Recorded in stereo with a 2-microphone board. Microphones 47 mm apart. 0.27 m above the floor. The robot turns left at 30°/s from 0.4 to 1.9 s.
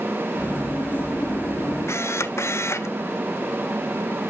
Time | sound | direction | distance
1.9 | a camera shutter | 75° left (ahead or behind) | 0.6 m